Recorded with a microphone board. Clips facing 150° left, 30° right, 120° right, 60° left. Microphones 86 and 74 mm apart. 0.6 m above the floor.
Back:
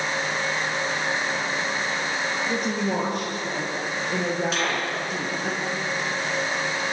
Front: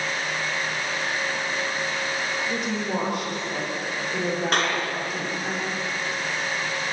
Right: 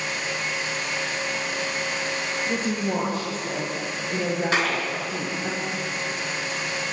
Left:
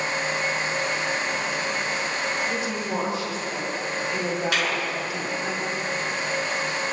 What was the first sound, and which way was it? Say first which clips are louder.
A woman speaking: back 2 dB, right 2 dB; 165° right.